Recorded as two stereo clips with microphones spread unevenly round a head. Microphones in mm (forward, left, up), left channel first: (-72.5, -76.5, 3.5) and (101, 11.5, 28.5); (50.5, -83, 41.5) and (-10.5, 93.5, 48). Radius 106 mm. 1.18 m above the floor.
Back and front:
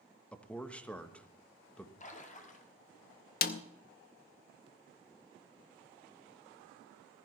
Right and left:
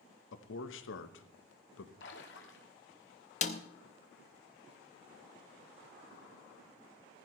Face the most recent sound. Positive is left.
turn(degrees=-120)